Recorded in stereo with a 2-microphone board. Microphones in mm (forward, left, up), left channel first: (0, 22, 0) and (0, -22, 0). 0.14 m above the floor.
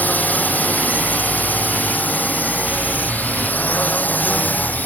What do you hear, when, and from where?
0.0 s a drone: 40° left (ahead or behind)